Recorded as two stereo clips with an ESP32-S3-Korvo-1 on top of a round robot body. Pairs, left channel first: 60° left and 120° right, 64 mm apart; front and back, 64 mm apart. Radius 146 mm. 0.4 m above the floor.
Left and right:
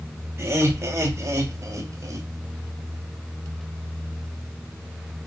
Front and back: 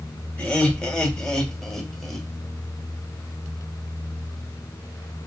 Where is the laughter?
70° right, 3.5 m; by 2.3 s 90° right, 3.5 m.